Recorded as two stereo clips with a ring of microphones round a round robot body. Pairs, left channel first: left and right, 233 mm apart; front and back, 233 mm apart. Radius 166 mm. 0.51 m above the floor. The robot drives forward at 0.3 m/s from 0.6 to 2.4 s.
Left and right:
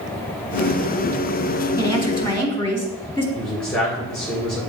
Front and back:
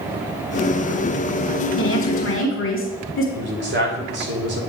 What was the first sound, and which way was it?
A woman speaking, 10° left.